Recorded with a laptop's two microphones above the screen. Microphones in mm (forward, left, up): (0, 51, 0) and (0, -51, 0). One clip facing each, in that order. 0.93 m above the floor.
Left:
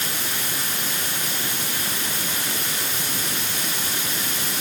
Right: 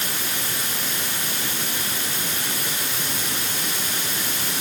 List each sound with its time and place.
Only background noise.